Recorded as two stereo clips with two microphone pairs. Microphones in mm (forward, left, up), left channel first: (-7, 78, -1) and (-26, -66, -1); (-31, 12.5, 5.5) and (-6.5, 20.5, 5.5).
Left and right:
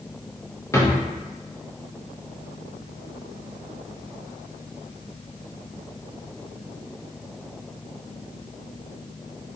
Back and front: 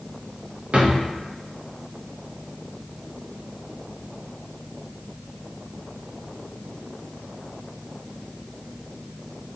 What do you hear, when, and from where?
0.7 s a drawer: 15° left, 0.8 m